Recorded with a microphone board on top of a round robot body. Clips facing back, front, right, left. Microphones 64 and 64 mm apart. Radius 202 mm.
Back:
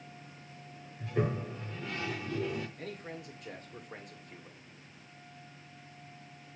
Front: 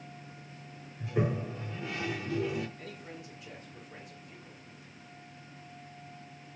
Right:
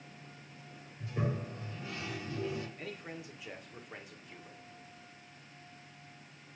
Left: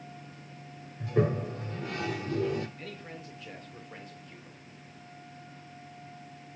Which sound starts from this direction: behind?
A man speaking, at 2.8 s.